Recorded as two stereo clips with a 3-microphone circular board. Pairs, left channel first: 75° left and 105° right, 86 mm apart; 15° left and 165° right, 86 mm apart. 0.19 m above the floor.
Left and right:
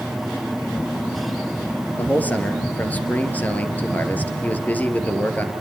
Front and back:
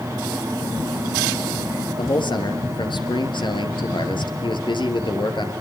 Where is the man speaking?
5° left, 3.5 m.